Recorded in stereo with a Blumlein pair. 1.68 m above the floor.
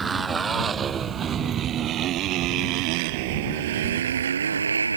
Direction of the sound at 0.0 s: 15° right.